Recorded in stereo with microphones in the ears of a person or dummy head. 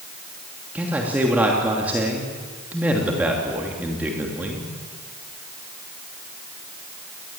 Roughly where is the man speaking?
Centre.